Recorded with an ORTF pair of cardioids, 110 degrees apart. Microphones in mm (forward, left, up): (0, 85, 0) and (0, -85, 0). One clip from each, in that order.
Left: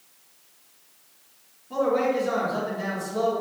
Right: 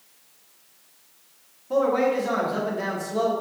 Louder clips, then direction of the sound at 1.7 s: Right 2 dB; 45° right.